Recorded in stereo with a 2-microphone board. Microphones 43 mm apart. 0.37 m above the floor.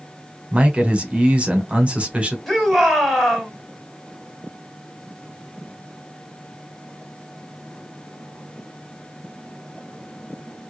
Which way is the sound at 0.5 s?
25° right (ahead or behind).